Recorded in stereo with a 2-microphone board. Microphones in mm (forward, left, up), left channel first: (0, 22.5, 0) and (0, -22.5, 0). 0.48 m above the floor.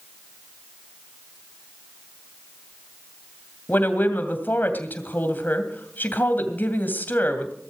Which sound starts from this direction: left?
A woman speaking, at 3.7 s.